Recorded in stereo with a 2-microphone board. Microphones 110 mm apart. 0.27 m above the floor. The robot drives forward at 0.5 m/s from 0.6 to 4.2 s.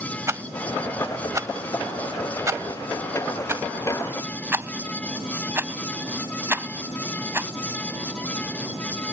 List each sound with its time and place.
0.3 s a rattle: 25° right (ahead or behind); by 7.5 s 20° right (ahead or behind)